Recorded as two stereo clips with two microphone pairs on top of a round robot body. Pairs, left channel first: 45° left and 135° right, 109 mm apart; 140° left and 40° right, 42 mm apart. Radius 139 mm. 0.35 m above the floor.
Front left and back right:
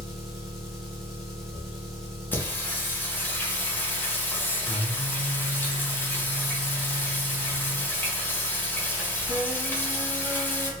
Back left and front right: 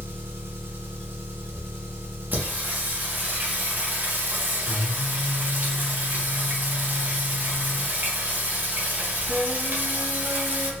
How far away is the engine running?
About 1.1 m.